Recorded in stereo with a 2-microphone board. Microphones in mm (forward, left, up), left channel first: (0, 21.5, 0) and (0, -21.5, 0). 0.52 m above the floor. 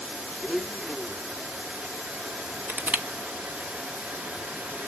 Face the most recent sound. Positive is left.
turn(degrees=-50)  # may be behind; listen again after turning